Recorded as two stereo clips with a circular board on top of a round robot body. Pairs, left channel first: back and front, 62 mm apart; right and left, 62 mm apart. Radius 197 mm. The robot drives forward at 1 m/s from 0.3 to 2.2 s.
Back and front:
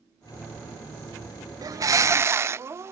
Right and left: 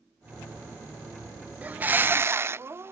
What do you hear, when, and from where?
1.6 s a bird: 25° left; by 2.9 s 40° left